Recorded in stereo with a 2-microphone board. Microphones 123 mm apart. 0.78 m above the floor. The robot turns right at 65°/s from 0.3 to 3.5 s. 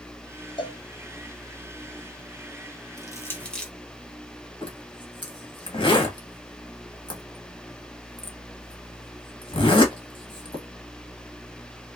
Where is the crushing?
30° left (ahead or behind), 0.9 m; by 3.7 s 5° left (ahead or behind), 0.9 m.